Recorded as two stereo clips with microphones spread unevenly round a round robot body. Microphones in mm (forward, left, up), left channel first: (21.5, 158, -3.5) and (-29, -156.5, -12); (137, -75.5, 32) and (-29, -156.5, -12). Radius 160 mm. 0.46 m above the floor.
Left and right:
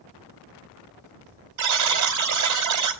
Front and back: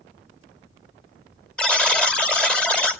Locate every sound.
1.6 s a buzzer: 65° right, 2.5 m